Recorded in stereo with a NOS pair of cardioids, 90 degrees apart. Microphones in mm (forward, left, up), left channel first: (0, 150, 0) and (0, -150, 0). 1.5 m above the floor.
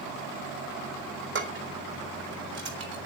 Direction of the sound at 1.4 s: 50° right.